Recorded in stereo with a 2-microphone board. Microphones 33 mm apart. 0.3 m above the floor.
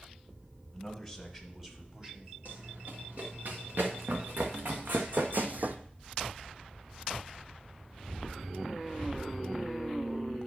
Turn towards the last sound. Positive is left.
turn(degrees=-60)  # may be behind; listen again after turning